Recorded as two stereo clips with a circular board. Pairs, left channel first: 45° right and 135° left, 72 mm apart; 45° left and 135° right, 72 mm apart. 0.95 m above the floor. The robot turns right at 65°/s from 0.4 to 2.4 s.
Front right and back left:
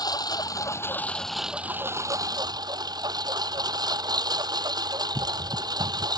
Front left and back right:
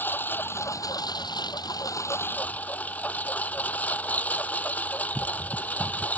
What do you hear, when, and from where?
0.0 s a lawn mower: 15° right; by 6.2 s 115° left